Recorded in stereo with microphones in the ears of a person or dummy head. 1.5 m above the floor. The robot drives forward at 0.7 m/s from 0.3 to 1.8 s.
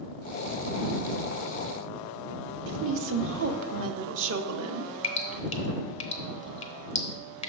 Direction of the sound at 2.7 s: 60° right (ahead or behind).